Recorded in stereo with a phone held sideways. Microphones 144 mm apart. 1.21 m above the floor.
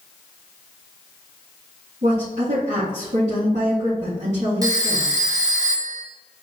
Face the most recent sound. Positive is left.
turn(degrees=-25)  # may be behind; listen again after turning